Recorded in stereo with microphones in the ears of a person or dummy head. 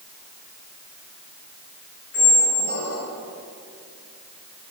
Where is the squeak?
65° left (ahead or behind), 3.5 m.